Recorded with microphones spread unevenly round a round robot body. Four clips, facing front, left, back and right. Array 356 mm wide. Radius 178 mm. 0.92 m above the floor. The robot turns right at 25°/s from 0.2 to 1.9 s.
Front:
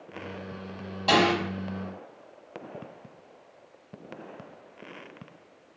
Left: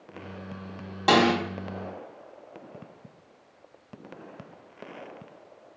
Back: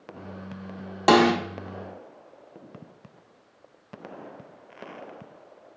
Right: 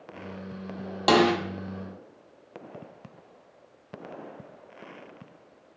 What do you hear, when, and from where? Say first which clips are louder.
1.1 s a snare drum: even, back 5 dB; 175° left, 0.5 m; by 1.3 s straight behind, 0.5 m